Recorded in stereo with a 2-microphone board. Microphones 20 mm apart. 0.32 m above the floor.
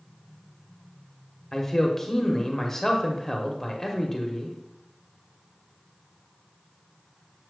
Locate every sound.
1.5 s a man speaking: 20° left (ahead or behind), 1.0 m